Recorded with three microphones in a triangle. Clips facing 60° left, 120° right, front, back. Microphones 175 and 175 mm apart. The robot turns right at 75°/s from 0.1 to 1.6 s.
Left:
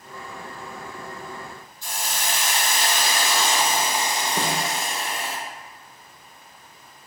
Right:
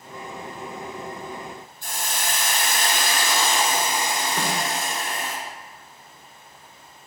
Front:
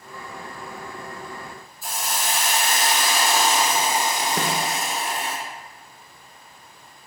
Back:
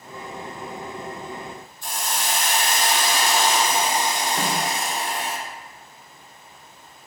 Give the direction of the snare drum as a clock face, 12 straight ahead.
12 o'clock.